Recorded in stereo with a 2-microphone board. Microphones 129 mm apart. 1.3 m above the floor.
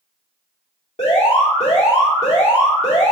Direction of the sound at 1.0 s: 55° left (ahead or behind).